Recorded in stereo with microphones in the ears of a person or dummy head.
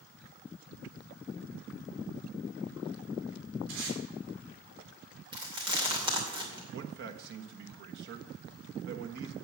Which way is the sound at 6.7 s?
55° right (ahead or behind).